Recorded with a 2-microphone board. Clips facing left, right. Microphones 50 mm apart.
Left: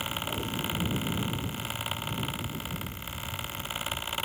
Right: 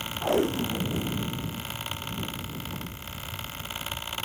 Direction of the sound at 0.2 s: 90° right.